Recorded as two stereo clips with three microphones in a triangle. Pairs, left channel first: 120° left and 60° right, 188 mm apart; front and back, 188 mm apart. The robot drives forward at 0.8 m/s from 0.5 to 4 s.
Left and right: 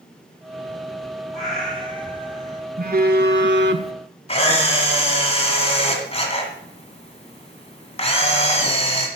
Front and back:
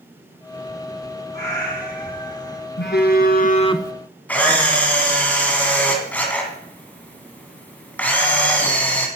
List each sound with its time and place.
1.3 s a cat meowing: 30° left, 3 m; by 2.6 s 45° left, 2 m
2.8 s a phone buzzing: 25° right, 1.1 m; by 3.9 s 85° right, 0.5 m
4.3 s a camera shutter: 75° left, 1.6 m